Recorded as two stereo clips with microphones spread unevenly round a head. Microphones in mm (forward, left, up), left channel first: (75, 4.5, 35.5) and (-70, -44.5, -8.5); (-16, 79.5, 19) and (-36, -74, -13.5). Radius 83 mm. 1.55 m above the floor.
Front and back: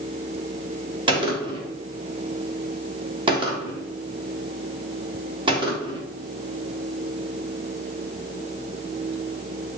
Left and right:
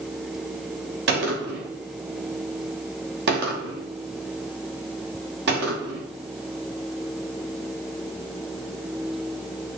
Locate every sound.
1.1 s a gunshot: 105° right, 3 m